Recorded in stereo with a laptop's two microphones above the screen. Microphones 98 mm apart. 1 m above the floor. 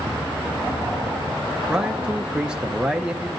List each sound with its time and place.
1.7 s a man speaking: 10° right (ahead or behind), 0.6 m